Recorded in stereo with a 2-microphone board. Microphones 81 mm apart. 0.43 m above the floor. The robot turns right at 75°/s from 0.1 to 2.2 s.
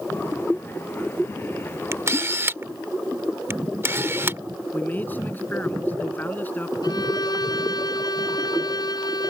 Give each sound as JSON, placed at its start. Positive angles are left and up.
{"t": 1.9, "sound": "a camera shutter", "side_deg": -35}
{"t": 4.7, "sound": "a man speaking", "side_deg": 20}
{"t": 6.8, "sound": "a violin", "side_deg": 60}